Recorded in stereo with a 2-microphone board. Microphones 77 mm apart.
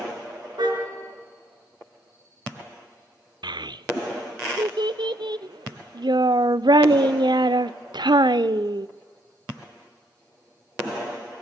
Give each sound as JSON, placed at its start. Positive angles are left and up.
{"t": 0.6, "sound": "a car horn", "side_deg": -65, "distance_m": 5.0}
{"t": 3.4, "sound": "a child speaking", "side_deg": -70, "distance_m": 0.6}